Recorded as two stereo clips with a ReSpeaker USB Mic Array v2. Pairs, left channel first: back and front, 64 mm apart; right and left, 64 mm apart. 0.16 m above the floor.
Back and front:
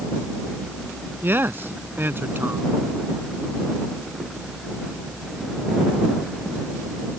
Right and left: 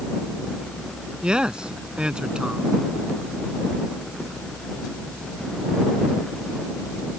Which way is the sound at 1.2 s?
25° left.